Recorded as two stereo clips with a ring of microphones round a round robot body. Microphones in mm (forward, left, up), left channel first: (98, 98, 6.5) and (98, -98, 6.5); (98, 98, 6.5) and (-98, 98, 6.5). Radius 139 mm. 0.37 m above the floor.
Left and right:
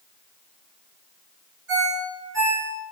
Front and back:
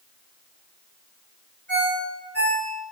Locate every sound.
1.7 s a ringtone: 85° right, 2 m